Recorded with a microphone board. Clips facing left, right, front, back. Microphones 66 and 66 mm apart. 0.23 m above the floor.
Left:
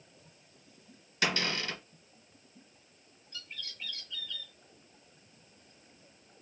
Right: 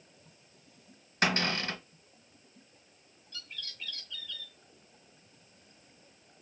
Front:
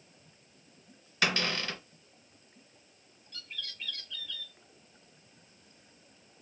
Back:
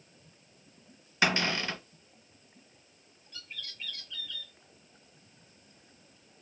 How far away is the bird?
About 1.2 m.